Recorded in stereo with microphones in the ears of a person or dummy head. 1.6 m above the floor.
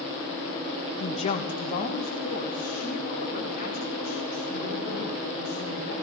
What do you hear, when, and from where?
1.0 s a woman speaking: 35° left (ahead or behind), 1.2 m; by 5.9 s 50° left (ahead or behind), 7 m